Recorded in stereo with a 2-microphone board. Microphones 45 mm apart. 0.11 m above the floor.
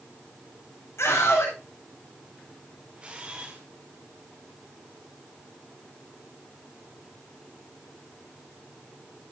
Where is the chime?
I don't hear a chime.